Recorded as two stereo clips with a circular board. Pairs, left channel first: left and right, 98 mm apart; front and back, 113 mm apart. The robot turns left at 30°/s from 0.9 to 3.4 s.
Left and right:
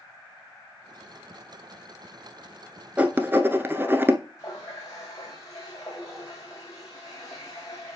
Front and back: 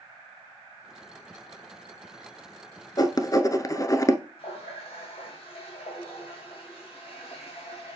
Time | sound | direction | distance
3.0 | writing | 25° right | 0.7 m
4.4 | a running tap | 35° left | 4 m